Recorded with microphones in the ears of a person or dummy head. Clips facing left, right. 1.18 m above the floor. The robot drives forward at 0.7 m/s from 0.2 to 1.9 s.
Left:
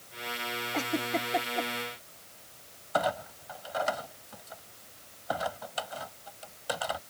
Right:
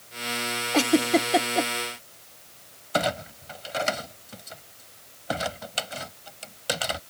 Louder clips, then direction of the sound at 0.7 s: Right 11 dB; 80° right.